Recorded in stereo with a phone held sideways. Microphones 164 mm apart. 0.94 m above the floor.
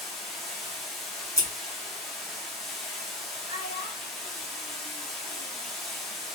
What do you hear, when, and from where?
0.0 s running water: centre (ahead or behind), 0.8 m
1.4 s scissors: 15° left (ahead or behind), 0.9 m
3.5 s a child speaking: 60° left (ahead or behind), 1.3 m